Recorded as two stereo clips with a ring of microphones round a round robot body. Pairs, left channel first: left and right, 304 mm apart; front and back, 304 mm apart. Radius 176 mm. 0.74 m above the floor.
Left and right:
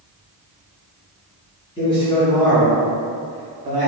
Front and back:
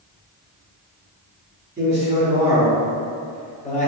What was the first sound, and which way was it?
A man speaking, 145° left.